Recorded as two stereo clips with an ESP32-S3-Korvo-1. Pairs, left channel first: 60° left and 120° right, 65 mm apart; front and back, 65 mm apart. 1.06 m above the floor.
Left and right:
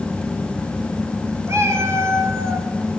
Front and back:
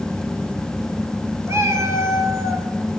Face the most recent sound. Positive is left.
turn(degrees=-150)